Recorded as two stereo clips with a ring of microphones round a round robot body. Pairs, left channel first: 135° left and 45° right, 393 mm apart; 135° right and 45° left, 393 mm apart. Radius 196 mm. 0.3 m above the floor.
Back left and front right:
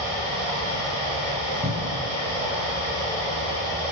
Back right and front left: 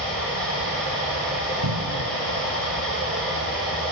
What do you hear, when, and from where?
0.0 s running water: 45° right, 6 m
1.6 s a cupboard door: 10° left, 1.4 m